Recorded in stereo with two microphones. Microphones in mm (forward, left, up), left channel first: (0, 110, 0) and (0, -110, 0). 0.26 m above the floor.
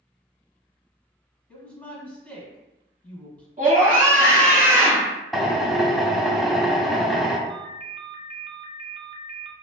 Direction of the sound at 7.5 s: 25° right (ahead or behind).